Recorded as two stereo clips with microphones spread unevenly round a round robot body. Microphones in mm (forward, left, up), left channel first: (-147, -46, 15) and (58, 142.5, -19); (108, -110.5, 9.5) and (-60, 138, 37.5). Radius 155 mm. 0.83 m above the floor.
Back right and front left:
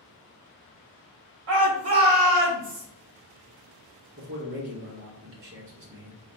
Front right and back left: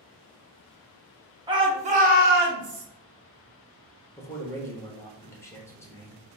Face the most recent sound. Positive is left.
turn(degrees=20)